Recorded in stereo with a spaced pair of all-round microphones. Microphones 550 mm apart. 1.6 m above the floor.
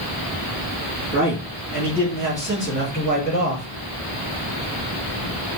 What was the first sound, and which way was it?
A man speaking, 25° right (ahead or behind).